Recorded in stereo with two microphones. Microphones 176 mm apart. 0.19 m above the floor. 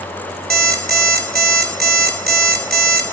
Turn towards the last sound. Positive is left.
turn(degrees=-65)  # may be behind; listen again after turning